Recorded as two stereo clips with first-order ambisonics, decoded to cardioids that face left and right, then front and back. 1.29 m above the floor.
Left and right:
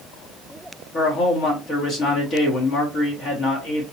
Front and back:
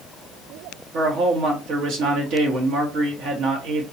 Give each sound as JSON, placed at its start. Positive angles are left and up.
{"t": 0.9, "sound": "a man speaking", "azimuth_deg": 150, "distance_m": 1.3}